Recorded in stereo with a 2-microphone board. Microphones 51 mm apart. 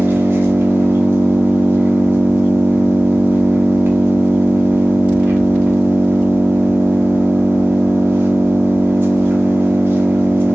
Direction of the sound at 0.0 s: 40° right (ahead or behind).